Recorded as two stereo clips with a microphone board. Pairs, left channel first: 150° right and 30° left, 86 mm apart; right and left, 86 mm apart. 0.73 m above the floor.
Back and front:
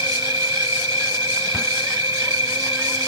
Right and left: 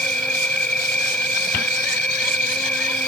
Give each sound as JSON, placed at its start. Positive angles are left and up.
{"t": 0.0, "sound": "an insect", "azimuth_deg": -15, "distance_m": 0.9}